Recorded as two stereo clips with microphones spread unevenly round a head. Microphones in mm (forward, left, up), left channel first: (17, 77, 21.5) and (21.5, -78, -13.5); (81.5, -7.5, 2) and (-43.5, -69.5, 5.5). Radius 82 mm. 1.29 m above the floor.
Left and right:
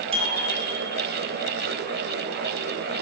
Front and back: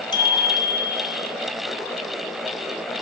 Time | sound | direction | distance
0.1 | a bicycle bell | 35° right | 8.5 m